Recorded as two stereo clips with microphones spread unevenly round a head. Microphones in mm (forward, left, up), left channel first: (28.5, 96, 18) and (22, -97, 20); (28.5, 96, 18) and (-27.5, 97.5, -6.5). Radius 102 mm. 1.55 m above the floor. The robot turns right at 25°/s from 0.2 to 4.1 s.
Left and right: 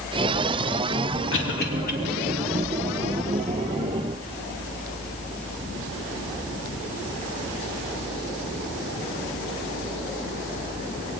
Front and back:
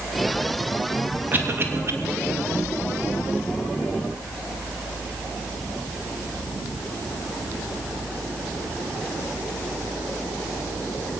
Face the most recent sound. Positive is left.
turn(degrees=-165)